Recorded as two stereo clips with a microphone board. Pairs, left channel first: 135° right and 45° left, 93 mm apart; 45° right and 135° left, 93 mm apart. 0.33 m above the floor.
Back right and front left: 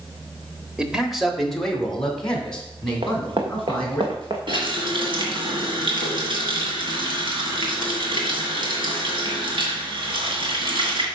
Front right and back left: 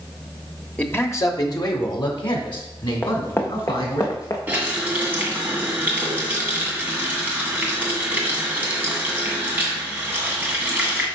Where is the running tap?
65° left, 2 m.